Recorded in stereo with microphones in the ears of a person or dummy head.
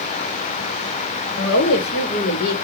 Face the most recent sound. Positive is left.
turn(degrees=50)  # may be behind; listen again after turning